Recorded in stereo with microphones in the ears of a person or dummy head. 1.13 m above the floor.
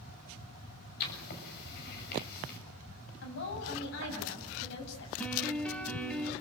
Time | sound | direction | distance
1.0 | writing | 50° left (ahead or behind) | 7 m
3.2 | a woman speaking | 60° left (ahead or behind) | 8 m
5.2 | a piano | centre (ahead or behind) | 2.5 m